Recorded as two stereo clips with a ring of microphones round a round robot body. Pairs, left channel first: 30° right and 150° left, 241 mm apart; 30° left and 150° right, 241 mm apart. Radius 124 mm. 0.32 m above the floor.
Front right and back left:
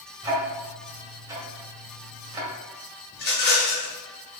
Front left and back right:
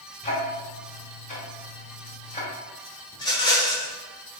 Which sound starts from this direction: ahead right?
A rattle, at 3.1 s.